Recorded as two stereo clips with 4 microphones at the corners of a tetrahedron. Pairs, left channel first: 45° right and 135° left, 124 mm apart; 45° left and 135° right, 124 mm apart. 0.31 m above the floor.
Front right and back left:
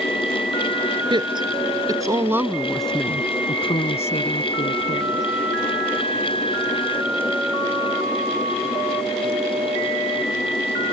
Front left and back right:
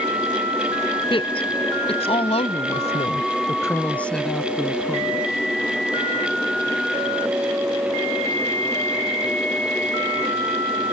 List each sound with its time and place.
1.1 s a woman speaking: 85° left; by 5.2 s 55° right